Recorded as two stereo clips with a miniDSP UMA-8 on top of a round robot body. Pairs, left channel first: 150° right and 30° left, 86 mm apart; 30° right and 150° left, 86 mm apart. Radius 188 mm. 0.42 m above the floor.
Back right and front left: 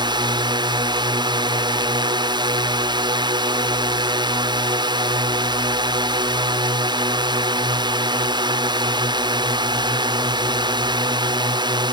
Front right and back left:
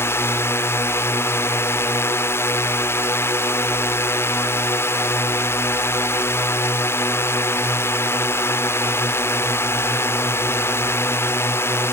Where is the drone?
25° left.